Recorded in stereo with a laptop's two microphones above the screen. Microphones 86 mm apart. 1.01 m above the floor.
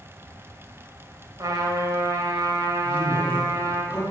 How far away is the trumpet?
About 2.5 m.